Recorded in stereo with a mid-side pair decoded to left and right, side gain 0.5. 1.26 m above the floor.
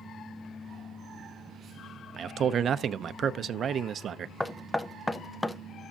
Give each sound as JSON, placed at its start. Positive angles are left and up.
{"t": 2.2, "sound": "a man speaking", "azimuth_deg": -50, "distance_m": 0.7}
{"t": 4.4, "sound": "knocking", "azimuth_deg": 10, "distance_m": 0.6}